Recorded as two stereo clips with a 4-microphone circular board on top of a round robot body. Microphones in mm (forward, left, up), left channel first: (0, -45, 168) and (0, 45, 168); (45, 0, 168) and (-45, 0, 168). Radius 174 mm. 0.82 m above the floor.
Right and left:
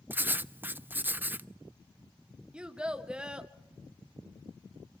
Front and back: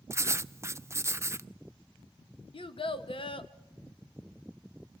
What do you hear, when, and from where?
0.1 s writing: 145° left, 0.5 m
2.5 s a child speaking: 10° left, 1.1 m